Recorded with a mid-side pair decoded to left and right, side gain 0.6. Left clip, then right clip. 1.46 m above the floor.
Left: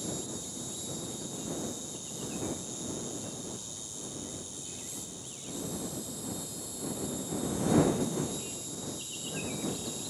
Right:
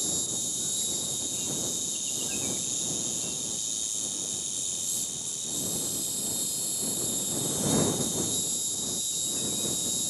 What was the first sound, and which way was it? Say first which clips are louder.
An insect: right 7 dB; 55° right.